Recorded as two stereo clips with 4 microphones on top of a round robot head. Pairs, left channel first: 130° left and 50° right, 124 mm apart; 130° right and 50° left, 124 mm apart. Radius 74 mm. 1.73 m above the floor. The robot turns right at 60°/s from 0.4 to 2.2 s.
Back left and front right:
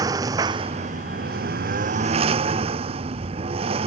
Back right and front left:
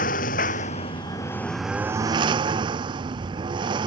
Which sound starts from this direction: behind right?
A lawn mower, at 0.0 s.